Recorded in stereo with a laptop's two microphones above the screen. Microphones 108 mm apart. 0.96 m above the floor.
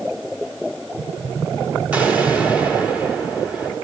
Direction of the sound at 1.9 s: 15° right (ahead or behind).